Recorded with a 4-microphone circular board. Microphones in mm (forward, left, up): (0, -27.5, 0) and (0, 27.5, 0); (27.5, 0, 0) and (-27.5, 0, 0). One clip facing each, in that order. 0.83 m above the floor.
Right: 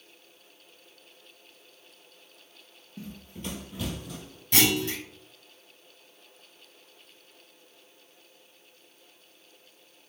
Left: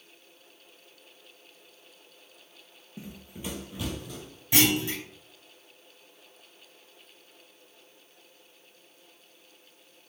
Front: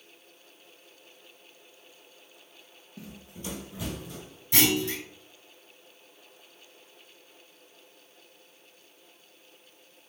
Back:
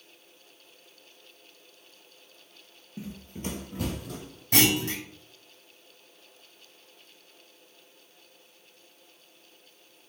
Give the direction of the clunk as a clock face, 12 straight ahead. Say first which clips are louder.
Even, back 1 dB; 6 o'clock.